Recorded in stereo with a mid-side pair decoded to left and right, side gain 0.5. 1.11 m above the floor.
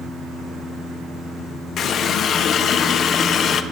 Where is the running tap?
55° left, 0.6 m.